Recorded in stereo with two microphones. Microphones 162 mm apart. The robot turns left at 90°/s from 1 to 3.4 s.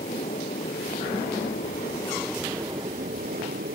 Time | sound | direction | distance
0.0 | an aircraft | 125° left | ?